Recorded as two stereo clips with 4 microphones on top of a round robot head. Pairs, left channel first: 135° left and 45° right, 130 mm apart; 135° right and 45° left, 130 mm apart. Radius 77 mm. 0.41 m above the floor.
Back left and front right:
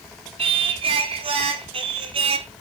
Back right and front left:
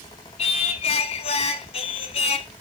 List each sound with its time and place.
0.4 s singing: 90° right, 0.7 m